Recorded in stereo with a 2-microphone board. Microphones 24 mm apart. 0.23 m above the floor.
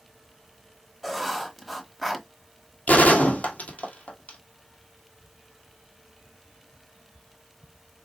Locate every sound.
1.0 s writing: centre (ahead or behind), 1.2 m
2.9 s a gunshot: 70° left (ahead or behind), 1.4 m